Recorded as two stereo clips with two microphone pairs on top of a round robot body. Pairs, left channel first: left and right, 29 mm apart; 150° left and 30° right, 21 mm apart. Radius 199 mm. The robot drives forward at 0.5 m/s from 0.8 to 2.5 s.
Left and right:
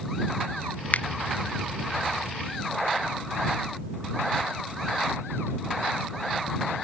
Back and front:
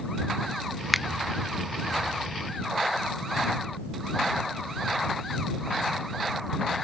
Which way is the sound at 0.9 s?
55° left.